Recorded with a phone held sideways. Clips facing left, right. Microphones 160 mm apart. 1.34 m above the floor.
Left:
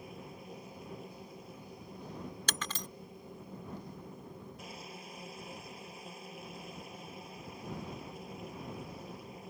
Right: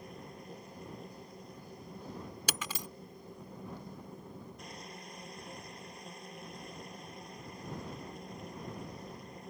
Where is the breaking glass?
10° right (ahead or behind).